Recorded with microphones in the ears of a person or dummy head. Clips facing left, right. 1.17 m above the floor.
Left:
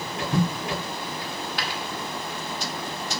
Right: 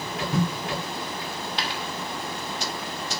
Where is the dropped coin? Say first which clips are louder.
Even; 20° right (ahead or behind), 1.1 m.